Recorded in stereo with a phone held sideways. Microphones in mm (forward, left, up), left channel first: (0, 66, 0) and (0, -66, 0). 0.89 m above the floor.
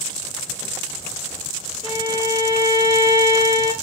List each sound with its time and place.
1.8 s a violin: 75° right (ahead or behind), 5 m